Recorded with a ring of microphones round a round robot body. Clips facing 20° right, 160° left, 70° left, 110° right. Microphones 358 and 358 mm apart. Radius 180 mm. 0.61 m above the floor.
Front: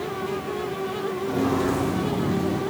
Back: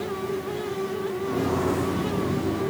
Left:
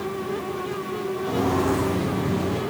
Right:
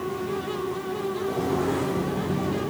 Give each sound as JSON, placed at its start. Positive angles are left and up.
{"t": 1.2, "sound": "footsteps", "azimuth_deg": 60, "distance_m": 6.5}